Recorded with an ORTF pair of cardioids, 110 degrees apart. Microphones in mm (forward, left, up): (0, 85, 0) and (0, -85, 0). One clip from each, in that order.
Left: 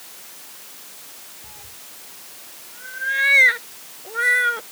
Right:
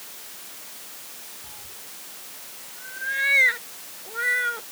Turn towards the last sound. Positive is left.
turn(degrees=35)